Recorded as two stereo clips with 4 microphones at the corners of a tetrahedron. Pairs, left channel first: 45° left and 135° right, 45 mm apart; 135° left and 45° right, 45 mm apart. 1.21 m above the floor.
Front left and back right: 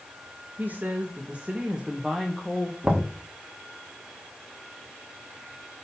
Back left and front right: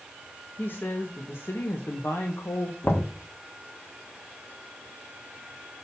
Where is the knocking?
160° left, 1.7 m.